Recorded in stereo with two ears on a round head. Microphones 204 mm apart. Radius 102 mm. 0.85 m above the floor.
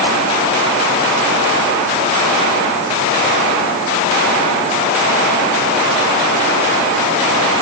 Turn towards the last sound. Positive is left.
No sound to turn to.